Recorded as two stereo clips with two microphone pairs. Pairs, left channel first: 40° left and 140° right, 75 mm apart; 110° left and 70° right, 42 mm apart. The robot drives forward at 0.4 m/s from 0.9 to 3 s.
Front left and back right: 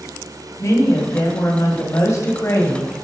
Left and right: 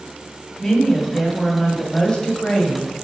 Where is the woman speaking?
40° left, 1.9 m; by 2.9 s 70° left, 1.6 m.